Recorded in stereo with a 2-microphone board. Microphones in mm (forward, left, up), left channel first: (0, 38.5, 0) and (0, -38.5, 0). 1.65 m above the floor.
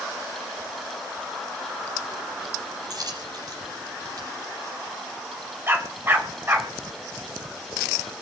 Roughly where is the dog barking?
Right.